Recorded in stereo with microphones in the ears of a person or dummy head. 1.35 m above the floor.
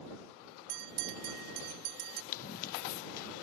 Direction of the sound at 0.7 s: 50° right (ahead or behind).